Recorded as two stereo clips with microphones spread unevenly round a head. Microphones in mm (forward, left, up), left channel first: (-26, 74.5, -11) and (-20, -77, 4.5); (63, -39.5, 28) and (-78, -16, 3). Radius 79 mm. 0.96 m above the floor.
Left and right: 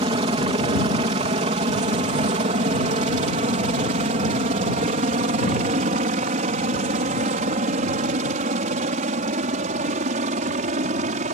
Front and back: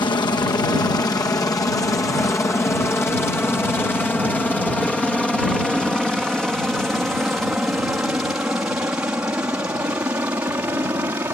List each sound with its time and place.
0.0 s a helicopter: 60° right; by 11.4 s 120° right